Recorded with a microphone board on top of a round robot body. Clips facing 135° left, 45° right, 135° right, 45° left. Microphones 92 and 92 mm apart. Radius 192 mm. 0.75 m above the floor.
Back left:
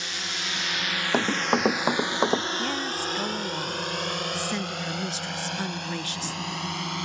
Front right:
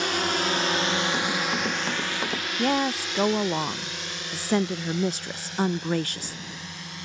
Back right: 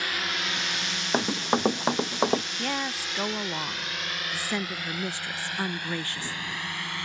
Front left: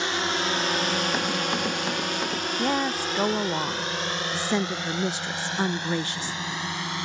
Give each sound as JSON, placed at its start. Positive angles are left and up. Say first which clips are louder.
{"t": 0.0, "sound": "a drone", "louder": "front right 10 dB, front left 5 dB", "azimuth_deg": -15}
{"t": 1.1, "sound": "running footsteps", "louder": "back left 3 dB, back right 1 dB", "azimuth_deg": 165}
{"t": 2.6, "sound": "a woman speaking", "louder": "front right 5 dB, front left 6 dB", "azimuth_deg": -20}